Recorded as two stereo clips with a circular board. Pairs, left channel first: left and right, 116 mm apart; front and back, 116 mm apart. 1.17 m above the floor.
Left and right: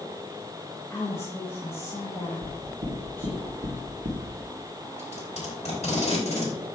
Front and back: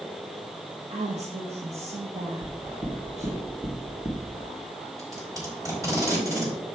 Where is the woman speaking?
160° left, 1.5 m.